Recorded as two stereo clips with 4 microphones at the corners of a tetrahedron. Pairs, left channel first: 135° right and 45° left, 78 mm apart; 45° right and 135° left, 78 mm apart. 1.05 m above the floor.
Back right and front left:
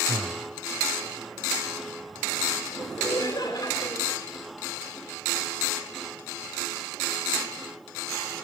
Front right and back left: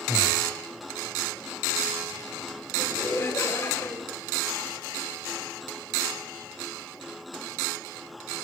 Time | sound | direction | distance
0.1 | breathing | 55° left | 1.0 m
2.8 | laughter | 105° right | 6 m